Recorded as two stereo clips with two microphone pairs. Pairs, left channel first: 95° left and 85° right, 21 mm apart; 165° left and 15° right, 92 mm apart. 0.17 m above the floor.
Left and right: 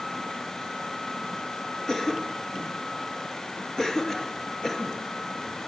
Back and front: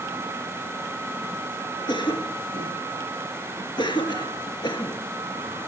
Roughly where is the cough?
Behind left.